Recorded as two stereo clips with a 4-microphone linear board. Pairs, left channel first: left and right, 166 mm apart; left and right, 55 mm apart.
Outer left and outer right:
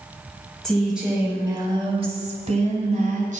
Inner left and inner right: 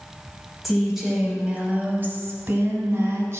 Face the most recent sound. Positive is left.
turn(degrees=-50)  # may be behind; listen again after turning